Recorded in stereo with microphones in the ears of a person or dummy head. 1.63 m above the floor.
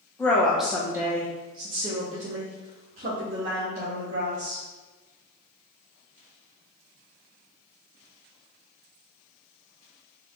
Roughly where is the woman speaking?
Centre.